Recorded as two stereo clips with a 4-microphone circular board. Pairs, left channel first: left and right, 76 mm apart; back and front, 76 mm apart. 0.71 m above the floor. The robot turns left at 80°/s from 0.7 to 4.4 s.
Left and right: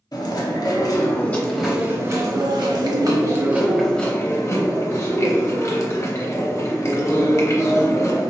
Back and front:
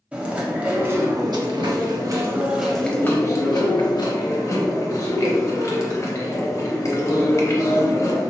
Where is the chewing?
70° left, 0.8 m; by 8.3 s 135° left, 0.8 m.